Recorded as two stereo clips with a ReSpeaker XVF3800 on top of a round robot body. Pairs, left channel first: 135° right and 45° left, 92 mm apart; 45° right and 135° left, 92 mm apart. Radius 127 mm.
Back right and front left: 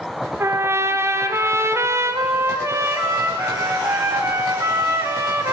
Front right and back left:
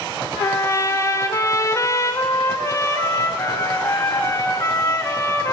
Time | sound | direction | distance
0.4 | a trumpet | 5° right | 1.9 m